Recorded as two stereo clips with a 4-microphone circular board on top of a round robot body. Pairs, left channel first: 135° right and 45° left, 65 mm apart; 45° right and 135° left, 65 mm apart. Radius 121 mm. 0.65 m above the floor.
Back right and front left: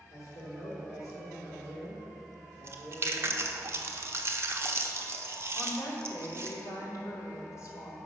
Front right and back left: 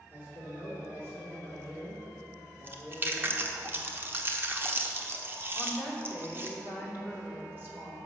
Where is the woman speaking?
170° right, 2.5 m.